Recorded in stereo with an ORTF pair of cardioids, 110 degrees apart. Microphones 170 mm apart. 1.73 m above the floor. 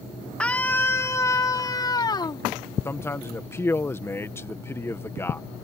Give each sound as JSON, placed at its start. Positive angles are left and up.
{"t": 0.4, "sound": "a scream", "azimuth_deg": 5}
{"t": 2.9, "sound": "a man speaking", "azimuth_deg": 15}